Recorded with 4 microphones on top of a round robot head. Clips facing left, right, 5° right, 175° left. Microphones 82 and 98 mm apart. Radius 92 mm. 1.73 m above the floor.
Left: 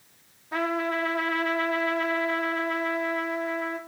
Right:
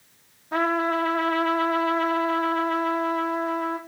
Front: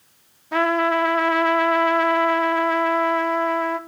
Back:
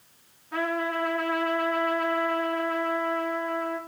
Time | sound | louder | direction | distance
0.5 | a trumpet | right 4 dB, front 9 dB | 20° right | 1.0 m